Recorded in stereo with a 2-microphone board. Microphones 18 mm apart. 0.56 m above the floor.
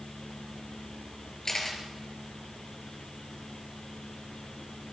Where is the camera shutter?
20° left (ahead or behind), 4.5 m.